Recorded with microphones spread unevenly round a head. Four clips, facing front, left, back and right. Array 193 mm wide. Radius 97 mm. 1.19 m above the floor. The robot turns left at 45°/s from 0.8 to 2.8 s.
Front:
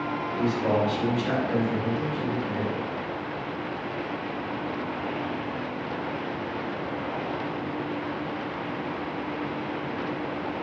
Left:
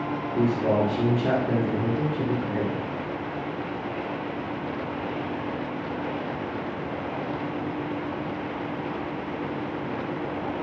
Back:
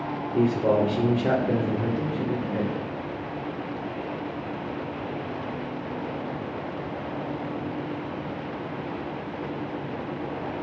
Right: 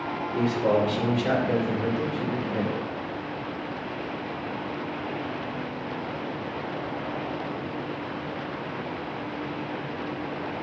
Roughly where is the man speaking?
Behind.